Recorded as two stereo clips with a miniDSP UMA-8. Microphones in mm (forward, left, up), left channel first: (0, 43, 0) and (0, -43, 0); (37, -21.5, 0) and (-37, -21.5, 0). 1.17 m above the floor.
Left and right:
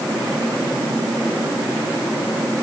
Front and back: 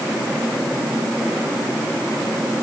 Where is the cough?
I don't hear a cough.